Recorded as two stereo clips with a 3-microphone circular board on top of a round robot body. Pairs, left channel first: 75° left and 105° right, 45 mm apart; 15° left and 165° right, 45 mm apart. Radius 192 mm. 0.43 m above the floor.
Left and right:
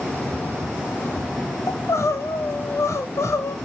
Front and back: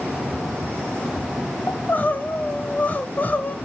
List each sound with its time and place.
1.7 s crying: 70° left, 0.5 m